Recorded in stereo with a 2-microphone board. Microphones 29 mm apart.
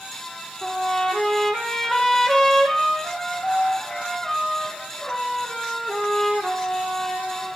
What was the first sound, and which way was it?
A trumpet, 10° left (ahead or behind).